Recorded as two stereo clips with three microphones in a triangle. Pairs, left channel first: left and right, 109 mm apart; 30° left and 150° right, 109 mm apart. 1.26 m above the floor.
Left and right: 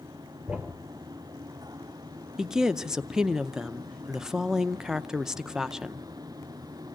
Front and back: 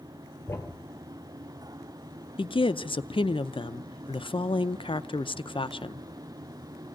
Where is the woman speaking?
5° right, 0.6 m.